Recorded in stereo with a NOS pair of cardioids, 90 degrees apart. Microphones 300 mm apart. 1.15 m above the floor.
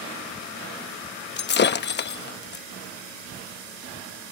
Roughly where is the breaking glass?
Ahead left.